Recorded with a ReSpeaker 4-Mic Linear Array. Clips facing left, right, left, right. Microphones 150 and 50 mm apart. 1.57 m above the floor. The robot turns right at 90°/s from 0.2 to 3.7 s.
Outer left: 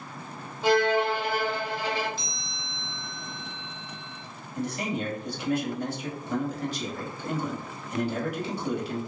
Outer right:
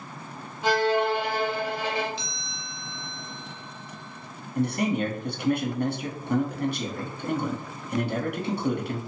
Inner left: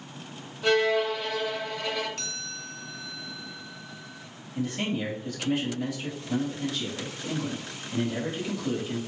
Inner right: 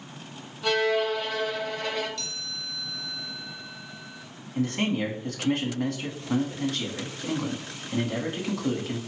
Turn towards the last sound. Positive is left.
turn(degrees=-65)  # may be behind; listen again after turning